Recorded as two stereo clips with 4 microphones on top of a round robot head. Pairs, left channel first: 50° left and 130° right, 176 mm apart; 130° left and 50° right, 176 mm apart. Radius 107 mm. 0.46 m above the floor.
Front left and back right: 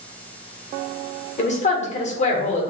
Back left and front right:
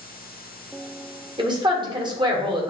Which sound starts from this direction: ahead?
A woman speaking, at 1.4 s.